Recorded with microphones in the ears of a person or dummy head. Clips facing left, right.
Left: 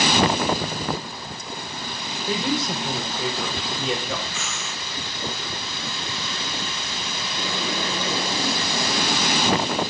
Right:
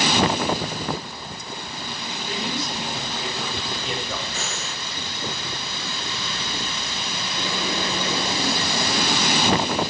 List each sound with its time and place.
2.3 s a woman speaking: 75° left (ahead or behind), 7.5 m
4.3 s breathing: 30° right (ahead or behind), 1.2 m